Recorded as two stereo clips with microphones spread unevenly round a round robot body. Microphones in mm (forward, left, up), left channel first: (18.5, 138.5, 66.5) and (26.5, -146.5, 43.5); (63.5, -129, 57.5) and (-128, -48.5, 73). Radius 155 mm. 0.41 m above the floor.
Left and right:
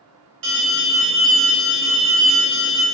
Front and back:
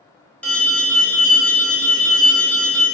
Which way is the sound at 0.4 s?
100° right.